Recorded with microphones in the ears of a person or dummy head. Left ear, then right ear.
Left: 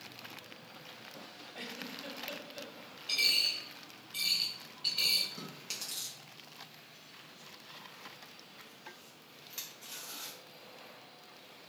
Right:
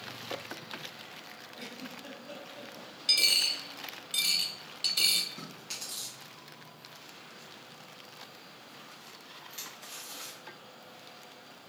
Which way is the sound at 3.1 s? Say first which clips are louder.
Right 4 dB; 65° right (ahead or behind).